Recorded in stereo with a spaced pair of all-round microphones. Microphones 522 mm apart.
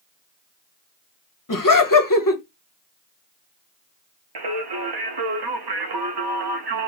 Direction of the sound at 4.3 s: 50° right (ahead or behind).